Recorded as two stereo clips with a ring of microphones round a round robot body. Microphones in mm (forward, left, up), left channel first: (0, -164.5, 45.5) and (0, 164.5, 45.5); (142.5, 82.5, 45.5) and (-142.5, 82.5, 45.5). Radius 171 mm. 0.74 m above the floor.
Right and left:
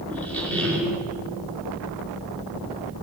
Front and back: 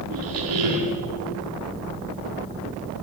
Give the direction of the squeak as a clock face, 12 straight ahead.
6 o'clock.